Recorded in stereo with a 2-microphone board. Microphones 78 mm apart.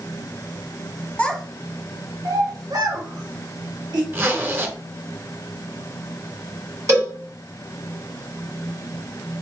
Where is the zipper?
30° right (ahead or behind), 0.6 m.